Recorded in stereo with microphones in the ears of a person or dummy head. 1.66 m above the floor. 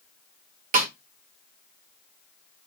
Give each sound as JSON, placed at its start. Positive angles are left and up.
{"t": 0.7, "sound": "a snare drum", "side_deg": -45, "distance_m": 0.6}